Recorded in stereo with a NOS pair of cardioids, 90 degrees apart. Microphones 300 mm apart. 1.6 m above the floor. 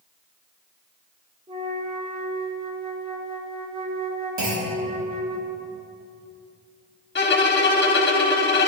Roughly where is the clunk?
Ahead right.